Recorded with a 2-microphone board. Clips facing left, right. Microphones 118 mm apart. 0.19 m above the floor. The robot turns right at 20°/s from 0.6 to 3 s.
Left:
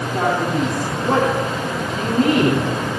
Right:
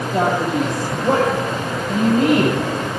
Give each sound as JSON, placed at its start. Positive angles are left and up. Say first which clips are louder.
{"t": 0.1, "sound": "a man speaking", "louder": "right 1 dB", "side_deg": -65, "distance_m": 7.5}